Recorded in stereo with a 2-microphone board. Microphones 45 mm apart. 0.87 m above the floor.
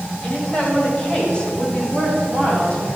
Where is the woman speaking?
15° left (ahead or behind), 5 m; by 2.9 s 25° left (ahead or behind), 6.5 m.